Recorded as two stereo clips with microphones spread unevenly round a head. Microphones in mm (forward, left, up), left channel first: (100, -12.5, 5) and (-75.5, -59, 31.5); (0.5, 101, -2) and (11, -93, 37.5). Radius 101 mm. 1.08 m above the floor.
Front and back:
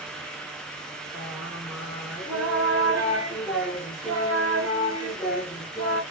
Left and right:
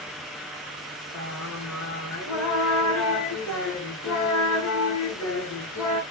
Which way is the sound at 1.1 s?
115° left.